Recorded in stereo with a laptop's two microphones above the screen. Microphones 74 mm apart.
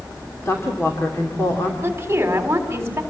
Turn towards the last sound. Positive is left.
turn(degrees=-30)  # may be behind; listen again after turning